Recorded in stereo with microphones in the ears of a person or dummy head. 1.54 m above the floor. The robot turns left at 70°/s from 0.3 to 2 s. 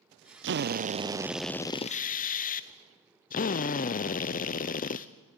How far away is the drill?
About 0.6 m.